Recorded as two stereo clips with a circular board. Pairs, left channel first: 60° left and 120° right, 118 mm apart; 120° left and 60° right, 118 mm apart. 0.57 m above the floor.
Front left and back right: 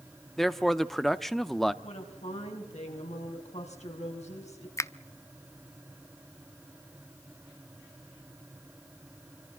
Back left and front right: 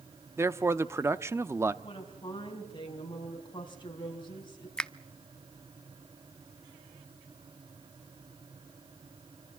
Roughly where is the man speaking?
Ahead right.